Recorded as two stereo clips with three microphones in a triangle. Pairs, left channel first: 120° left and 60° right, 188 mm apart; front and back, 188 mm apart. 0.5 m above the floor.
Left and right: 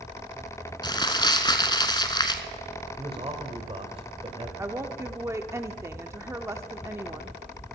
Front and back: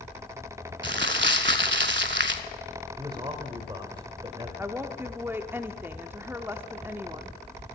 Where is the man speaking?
115° right, 1.8 m.